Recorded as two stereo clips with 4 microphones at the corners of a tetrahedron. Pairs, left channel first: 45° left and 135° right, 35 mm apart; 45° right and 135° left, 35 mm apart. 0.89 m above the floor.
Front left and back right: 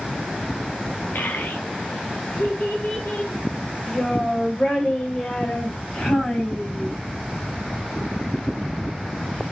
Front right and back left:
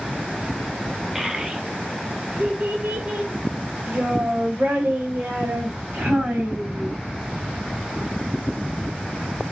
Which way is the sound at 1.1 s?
50° left.